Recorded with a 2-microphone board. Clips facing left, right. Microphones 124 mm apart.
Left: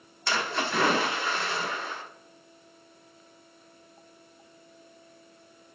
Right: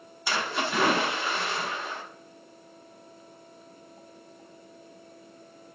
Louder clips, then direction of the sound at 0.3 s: Even; 10° right (ahead or behind).